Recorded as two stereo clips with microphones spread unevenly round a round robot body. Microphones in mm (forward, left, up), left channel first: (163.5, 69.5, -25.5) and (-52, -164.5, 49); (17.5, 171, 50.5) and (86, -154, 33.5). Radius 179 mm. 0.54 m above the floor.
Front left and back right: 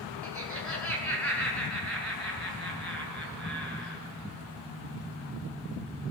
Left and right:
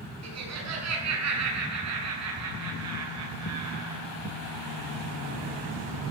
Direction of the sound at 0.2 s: 35° right.